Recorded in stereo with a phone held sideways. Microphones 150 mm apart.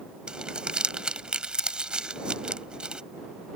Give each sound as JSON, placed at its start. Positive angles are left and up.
{"t": 0.3, "sound": "crumpling", "side_deg": -5}